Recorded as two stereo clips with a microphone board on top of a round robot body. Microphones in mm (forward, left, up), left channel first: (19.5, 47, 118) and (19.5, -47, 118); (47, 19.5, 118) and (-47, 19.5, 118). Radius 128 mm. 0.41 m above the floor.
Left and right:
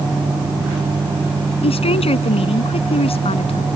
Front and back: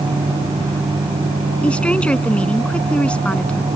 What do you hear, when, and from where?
1.6 s a woman speaking: 80° left